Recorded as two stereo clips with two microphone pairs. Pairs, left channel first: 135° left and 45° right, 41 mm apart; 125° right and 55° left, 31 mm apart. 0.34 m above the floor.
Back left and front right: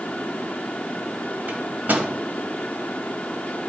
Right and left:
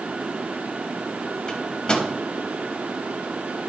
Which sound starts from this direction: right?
A microwave, at 1.5 s.